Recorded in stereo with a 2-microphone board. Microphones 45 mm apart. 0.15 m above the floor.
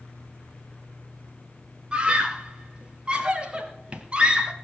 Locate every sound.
1.9 s a scream: 25° right (ahead or behind), 3 m